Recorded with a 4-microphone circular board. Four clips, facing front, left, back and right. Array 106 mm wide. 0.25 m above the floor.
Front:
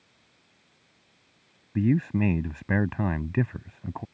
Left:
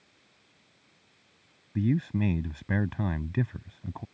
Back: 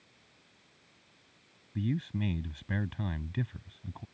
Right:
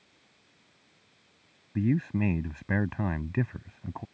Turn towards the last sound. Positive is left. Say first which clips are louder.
# even, front 10 dB
turn(degrees=-10)